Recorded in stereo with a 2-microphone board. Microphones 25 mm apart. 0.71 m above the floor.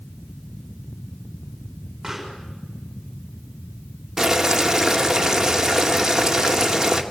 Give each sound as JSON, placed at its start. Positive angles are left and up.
{"t": 2.0, "sound": "a pop", "side_deg": -10, "distance_m": 7.0}
{"t": 4.2, "sound": "boiling", "side_deg": -15, "distance_m": 2.0}